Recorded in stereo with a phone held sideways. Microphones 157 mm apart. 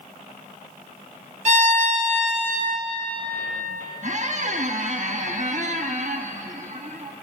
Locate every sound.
1.4 s a violin: 50° right (ahead or behind), 1.1 m
4.0 s a squeak: 50° right (ahead or behind), 0.8 m